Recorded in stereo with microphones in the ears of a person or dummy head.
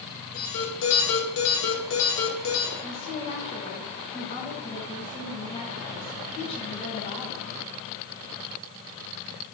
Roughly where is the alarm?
Left.